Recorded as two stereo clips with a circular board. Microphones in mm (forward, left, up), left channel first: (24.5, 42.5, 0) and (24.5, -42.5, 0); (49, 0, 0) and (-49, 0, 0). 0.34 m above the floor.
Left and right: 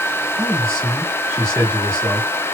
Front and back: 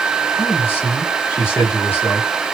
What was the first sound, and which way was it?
A man speaking, 55° right.